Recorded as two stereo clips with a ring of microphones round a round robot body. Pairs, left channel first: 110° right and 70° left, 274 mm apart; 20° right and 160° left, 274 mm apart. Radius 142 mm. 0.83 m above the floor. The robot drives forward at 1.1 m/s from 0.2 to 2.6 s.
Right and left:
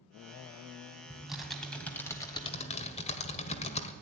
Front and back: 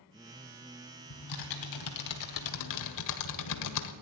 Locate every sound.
1.1 s typing on a keyboard: 20° right, 3 m; by 3.9 s 45° right, 1.4 m